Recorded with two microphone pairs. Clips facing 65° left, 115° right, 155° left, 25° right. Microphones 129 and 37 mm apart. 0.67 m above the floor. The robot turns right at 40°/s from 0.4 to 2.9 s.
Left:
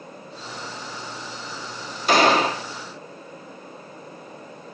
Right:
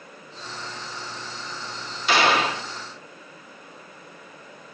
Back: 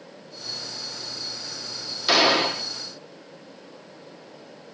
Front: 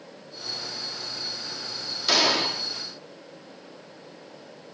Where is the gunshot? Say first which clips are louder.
Left 3 dB, back 4 dB; 85° left, 1.2 m; by 2.6 s 110° left, 1.2 m.